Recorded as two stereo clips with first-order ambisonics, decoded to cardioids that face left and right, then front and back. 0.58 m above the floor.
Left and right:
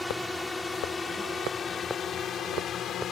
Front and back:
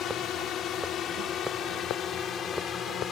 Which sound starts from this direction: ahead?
A drone, at 0.0 s.